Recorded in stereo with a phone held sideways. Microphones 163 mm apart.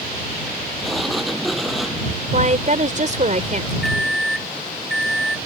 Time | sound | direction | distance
0.8 | a sliding door | centre (ahead or behind) | ?
2.3 | a woman speaking | 50° right (ahead or behind) | ?
3.8 | a microwave | centre (ahead or behind) | ?